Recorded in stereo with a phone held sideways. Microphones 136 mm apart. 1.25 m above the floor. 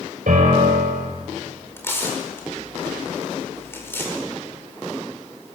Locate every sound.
0.3 s a piano: 75° right (ahead or behind), 7 m
1.8 s tearing paper: 15° left (ahead or behind), 4.5 m